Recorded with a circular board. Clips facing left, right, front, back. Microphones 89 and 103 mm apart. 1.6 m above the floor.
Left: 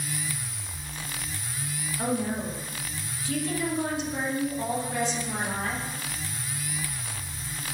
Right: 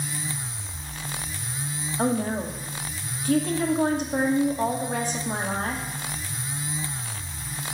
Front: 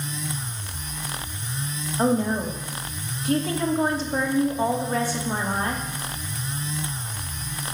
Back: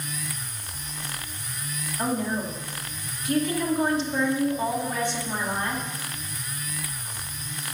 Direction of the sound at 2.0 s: 50° right.